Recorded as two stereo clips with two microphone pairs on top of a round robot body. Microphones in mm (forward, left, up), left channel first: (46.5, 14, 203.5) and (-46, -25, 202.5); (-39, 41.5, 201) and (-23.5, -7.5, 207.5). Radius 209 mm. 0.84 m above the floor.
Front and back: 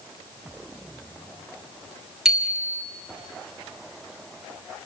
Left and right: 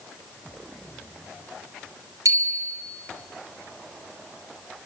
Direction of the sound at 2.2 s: 75° right.